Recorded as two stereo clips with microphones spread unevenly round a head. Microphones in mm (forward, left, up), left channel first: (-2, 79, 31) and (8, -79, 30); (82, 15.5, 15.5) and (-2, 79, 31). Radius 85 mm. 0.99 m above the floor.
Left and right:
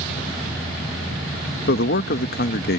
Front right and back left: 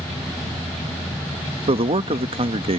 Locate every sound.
1.7 s a man speaking: 110° left